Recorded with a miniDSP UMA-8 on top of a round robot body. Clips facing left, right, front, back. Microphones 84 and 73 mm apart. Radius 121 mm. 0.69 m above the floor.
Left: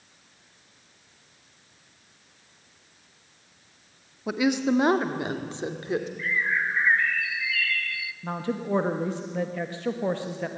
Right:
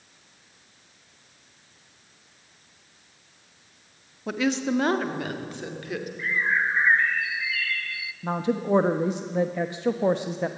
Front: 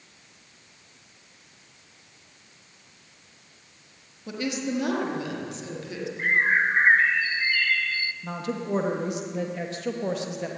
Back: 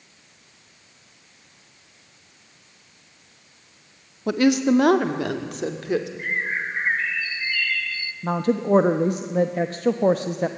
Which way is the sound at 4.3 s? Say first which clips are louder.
Left 2 dB, back 11 dB; 170° left.